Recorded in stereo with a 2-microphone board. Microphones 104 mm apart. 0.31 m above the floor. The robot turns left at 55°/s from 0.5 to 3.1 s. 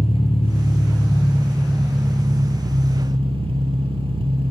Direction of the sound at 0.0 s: 75° left.